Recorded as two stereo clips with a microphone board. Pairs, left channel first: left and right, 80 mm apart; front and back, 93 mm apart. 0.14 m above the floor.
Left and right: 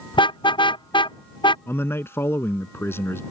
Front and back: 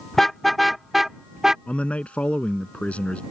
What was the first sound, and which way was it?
A car horn, 85° left.